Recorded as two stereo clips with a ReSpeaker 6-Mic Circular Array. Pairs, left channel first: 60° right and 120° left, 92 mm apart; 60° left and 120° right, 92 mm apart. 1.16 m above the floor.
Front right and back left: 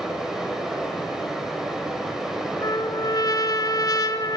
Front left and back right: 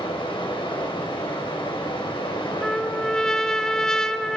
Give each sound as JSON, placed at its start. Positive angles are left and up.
{"t": 0.0, "sound": "running water", "azimuth_deg": 35, "distance_m": 5.0}
{"t": 2.6, "sound": "a trumpet", "azimuth_deg": -20, "distance_m": 1.6}